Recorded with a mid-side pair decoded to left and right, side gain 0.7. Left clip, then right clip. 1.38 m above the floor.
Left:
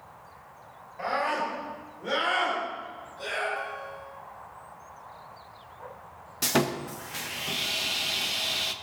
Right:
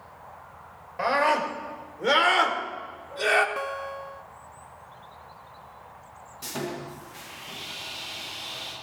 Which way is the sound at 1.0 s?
40° right.